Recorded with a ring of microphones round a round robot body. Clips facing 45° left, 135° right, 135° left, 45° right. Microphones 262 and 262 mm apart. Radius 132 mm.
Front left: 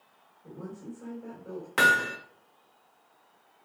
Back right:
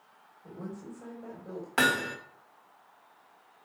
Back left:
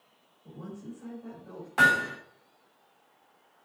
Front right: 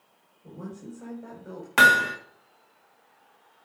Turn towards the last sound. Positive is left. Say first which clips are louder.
# back right 1 dB, front right 4 dB
turn(degrees=-40)